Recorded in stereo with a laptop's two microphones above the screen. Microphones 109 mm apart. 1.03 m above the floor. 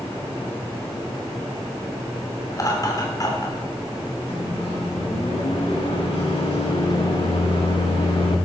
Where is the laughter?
35° left (ahead or behind), 3 m.